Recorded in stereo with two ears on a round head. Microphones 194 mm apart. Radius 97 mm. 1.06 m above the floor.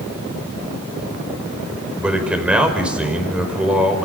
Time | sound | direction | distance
2.0 | a man speaking | 5° right (ahead or behind) | 5 m